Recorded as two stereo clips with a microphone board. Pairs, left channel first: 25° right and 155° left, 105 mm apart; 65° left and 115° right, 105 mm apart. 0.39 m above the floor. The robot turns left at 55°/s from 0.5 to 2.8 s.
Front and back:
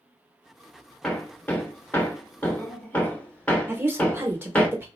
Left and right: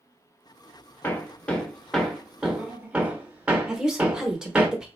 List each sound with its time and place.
1.0 s hammering: 35° left, 0.7 m; by 4.7 s 60° right, 0.7 m
3.7 s a woman speaking: 175° left, 0.8 m